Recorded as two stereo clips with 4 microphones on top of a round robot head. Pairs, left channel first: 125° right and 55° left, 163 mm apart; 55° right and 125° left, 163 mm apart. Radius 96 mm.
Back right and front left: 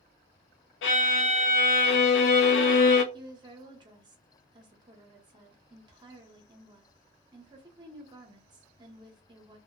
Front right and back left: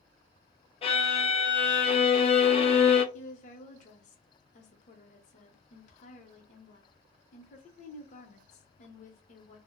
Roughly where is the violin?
Behind right.